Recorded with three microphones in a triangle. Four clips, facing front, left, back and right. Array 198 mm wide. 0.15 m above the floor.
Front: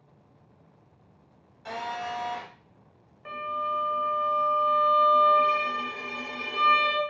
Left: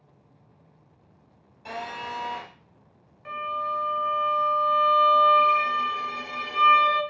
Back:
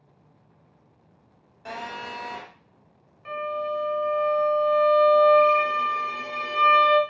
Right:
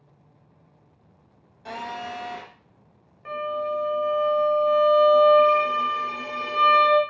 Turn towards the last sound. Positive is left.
turn(degrees=-65)